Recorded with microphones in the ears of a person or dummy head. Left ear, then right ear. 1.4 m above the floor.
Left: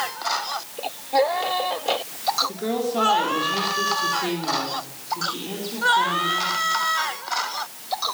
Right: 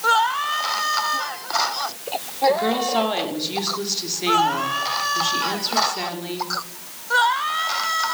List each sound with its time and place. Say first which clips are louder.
2.5 s a woman speaking: right 6 dB; 40° right (ahead or behind), 4 m; by 6.5 s 75° right (ahead or behind), 5 m